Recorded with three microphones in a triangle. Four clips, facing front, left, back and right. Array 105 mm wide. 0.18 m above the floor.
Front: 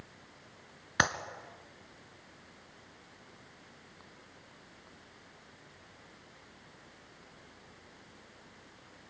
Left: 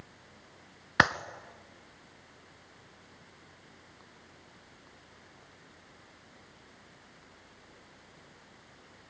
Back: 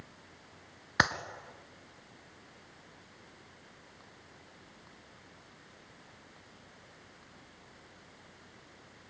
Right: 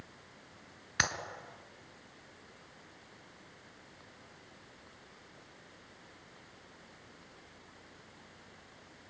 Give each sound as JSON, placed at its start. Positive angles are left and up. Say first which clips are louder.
{"t": 1.0, "sound": "a clap", "louder": "left 10 dB, back 1 dB", "azimuth_deg": 95, "distance_m": 1.6}